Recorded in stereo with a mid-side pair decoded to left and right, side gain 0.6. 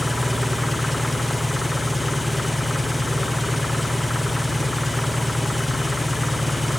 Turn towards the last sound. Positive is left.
turn(degrees=5)